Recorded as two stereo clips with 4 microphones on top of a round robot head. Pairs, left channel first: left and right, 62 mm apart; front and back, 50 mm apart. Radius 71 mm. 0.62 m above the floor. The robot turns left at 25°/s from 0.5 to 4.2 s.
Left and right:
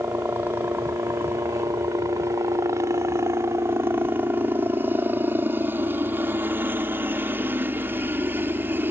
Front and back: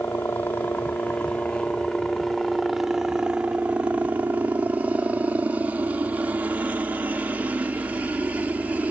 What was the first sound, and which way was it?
A helicopter, 40° right.